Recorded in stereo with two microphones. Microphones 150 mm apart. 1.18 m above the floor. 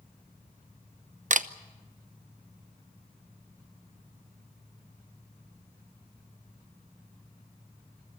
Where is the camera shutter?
55° right (ahead or behind), 0.7 m.